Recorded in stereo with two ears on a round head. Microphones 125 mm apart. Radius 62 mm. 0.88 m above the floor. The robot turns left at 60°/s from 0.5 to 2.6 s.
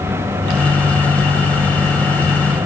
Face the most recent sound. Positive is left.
No sound to turn to.